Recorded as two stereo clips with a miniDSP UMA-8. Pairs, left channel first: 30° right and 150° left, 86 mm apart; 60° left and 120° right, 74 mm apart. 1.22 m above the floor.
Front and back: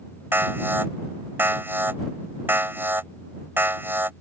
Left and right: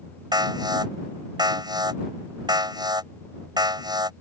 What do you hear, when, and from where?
0.3 s an alarm: 145° right